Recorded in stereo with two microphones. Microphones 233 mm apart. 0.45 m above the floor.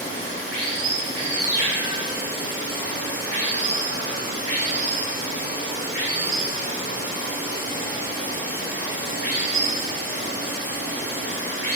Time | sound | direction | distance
0.0 | running water | 35° left (ahead or behind) | 1.2 m